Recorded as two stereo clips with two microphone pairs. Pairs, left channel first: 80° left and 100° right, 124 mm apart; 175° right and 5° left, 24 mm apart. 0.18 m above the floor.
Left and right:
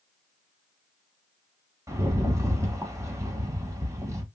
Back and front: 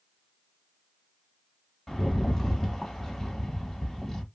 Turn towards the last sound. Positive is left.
turn(degrees=-110)